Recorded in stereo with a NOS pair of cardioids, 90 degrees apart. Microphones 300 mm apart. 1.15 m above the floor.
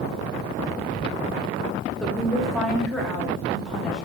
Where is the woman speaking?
Straight ahead, 0.9 m.